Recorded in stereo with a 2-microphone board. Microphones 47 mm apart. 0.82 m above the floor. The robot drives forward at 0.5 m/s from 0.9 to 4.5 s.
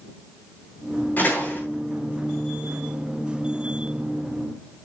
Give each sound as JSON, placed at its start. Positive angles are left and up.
{"t": 1.2, "sound": "a door slam", "side_deg": 40, "distance_m": 10.0}